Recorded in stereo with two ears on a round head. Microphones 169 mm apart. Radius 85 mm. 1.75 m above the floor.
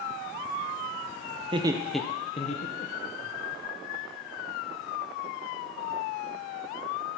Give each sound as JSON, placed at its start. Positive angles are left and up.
{"t": 1.4, "sound": "laughter", "side_deg": -35, "distance_m": 0.8}